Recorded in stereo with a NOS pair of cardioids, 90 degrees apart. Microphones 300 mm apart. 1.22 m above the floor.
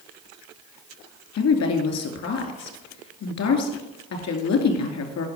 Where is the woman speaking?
65° left, 2.5 m.